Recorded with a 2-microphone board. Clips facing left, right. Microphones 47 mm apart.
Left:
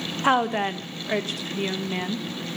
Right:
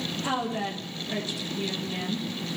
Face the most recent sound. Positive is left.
turn(degrees=45)  # may be behind; listen again after turning